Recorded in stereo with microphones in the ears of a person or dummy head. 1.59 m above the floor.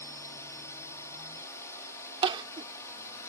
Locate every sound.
0.0 s a drone: 20° left (ahead or behind)
2.2 s crying: 30° right (ahead or behind)